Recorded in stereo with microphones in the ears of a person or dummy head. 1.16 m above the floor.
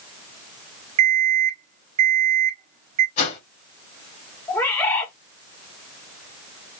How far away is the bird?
About 0.8 m.